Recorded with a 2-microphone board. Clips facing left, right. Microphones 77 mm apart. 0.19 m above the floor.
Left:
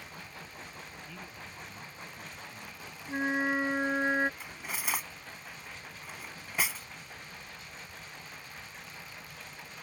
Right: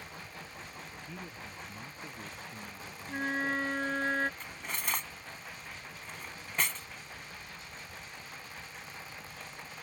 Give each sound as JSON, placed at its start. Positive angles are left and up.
{"t": 1.1, "sound": "a man speaking", "side_deg": -20}
{"t": 3.1, "sound": "a flute", "side_deg": 15}
{"t": 4.4, "sound": "cutlery clinking", "side_deg": 5}